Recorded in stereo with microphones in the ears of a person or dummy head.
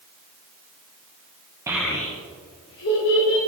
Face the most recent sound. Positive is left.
turn(degrees=70)  # may be behind; listen again after turning